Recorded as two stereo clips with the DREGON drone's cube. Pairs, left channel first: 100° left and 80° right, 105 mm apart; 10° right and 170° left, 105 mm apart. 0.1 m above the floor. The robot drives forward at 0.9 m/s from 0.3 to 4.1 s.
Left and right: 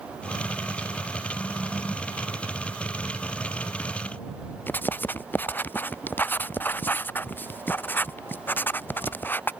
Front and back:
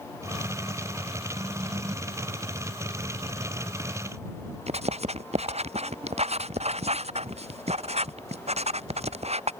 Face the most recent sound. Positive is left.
turn(degrees=175)